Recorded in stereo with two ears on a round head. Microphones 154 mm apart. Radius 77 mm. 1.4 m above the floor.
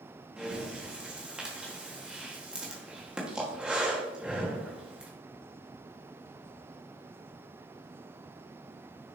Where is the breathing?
5° right (ahead or behind), 1.5 m.